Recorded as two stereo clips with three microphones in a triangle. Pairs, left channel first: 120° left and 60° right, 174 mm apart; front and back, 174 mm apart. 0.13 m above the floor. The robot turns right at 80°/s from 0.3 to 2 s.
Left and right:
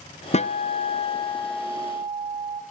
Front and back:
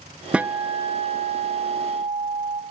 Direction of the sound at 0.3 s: 100° left.